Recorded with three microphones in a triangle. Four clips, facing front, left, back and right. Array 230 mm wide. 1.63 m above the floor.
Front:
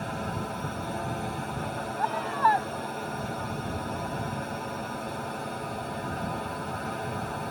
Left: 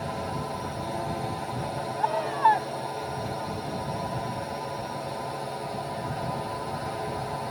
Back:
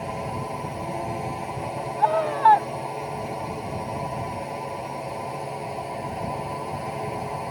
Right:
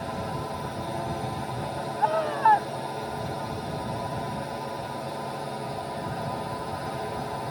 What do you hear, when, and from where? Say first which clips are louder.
0.0 s a drone: even, back 3 dB; 175° left
2.0 s a scream: right 1 dB, back 6 dB; 160° right